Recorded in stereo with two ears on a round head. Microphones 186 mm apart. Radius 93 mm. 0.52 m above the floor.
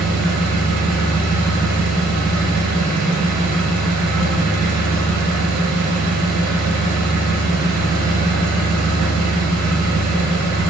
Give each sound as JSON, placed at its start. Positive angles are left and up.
{"t": 0.0, "sound": "an engine running", "side_deg": -55, "distance_m": 2.5}